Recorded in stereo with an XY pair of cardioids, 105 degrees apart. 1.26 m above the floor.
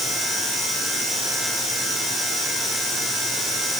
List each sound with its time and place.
Only background noise.